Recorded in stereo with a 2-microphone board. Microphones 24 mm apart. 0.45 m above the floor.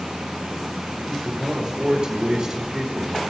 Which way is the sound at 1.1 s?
30° right (ahead or behind).